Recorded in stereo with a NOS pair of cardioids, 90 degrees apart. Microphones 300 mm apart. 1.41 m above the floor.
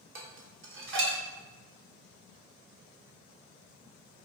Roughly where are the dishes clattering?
Ahead right.